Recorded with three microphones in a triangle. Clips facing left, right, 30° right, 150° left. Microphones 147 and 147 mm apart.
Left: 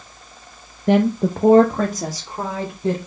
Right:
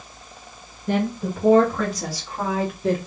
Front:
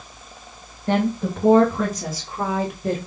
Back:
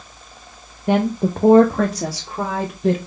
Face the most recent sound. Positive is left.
turn(degrees=165)